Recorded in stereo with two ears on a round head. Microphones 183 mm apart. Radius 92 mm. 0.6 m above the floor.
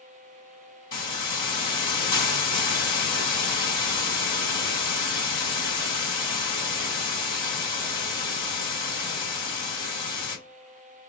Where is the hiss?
25° left (ahead or behind), 1.8 m.